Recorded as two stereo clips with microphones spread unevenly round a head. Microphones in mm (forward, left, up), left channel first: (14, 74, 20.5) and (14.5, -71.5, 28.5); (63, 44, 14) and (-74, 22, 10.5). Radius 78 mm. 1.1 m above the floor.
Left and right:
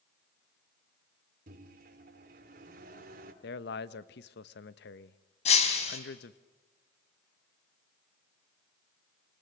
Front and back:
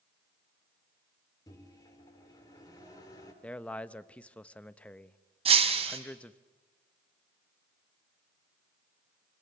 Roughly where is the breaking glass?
Behind left.